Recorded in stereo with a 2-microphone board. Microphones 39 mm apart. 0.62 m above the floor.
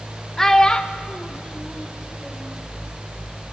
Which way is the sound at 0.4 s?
10° left (ahead or behind).